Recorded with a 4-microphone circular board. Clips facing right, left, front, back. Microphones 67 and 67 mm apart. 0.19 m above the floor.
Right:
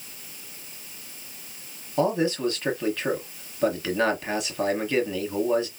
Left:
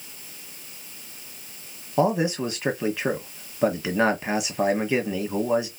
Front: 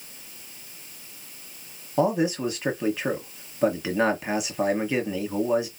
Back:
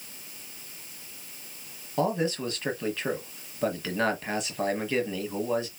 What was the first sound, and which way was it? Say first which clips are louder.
A man speaking: left 1 dB, front 4 dB; 55° left.